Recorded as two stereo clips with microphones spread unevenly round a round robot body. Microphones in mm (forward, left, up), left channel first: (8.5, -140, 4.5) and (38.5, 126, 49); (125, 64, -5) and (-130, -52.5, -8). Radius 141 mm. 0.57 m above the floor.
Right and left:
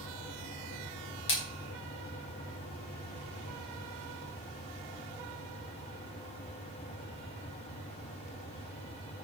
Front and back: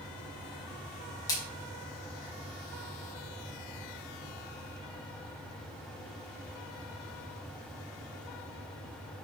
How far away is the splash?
About 5 m.